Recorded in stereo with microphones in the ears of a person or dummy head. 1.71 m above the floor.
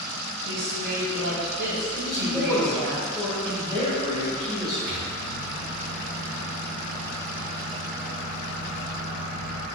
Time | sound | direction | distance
0.5 | a woman speaking | 75° right (ahead or behind) | 1.7 m
1.9 | a man speaking | 5° left (ahead or behind) | 1.7 m
4.9 | a microwave | 70° right (ahead or behind) | 1.1 m